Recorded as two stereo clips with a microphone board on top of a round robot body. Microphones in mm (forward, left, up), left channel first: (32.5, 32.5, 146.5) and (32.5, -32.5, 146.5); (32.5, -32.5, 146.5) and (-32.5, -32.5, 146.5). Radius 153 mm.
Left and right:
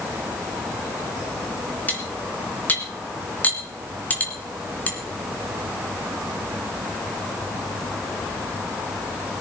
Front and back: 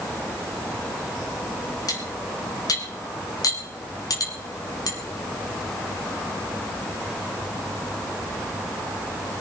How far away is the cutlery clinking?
About 3.5 m.